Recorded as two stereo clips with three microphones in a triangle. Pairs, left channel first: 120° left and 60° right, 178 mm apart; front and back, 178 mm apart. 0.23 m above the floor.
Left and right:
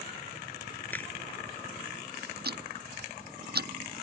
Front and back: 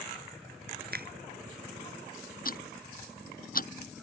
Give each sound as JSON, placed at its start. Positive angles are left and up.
{"t": 0.9, "sound": "a finger snap", "azimuth_deg": -160}
{"t": 2.5, "sound": "ticking", "azimuth_deg": -35}